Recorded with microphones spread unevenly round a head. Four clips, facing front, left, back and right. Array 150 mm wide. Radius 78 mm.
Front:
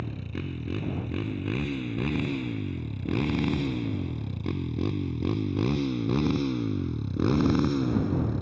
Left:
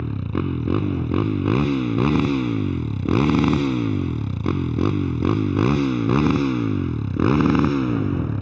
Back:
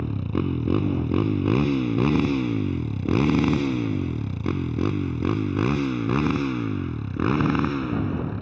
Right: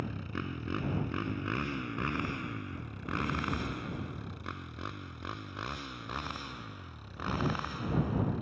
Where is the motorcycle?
135° left; by 8.4 s 90° left.